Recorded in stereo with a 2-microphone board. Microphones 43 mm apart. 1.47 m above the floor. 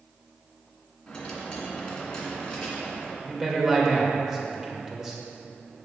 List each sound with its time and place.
1.1 s a dropped coin: 20° left (ahead or behind), 2 m
3.2 s a man speaking: 15° right (ahead or behind), 1.8 m